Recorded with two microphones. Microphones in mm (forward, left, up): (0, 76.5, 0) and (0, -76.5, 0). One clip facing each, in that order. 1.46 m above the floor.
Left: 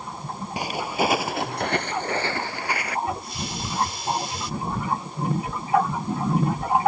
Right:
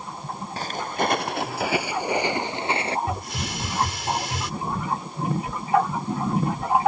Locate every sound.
0.6 s footsteps: 15° left (ahead or behind); by 3.0 s 30° right (ahead or behind)
3.1 s a hiss: 80° right